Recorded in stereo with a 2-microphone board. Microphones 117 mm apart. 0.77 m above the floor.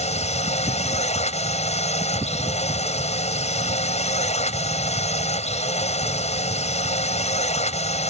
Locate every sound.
0.0 s a drone: 75° left (ahead or behind)